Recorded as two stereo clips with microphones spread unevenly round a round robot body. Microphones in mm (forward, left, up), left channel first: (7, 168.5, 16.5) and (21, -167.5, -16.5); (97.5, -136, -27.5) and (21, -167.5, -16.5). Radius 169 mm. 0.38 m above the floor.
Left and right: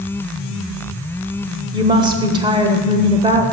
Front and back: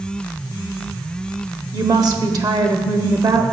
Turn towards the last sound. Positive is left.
turn(degrees=-150)